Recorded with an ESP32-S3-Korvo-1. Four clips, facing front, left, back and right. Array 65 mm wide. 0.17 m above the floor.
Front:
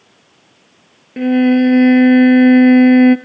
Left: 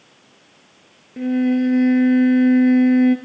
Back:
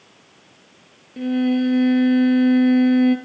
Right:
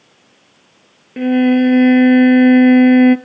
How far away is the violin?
About 0.8 m.